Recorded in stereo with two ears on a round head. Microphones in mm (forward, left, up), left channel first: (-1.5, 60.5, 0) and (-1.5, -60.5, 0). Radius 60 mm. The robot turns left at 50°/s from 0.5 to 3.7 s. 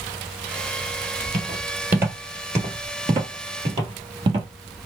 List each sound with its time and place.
1.3 s footsteps: 15° right (ahead or behind), 1.6 m; by 4.5 s 35° right (ahead or behind), 2.0 m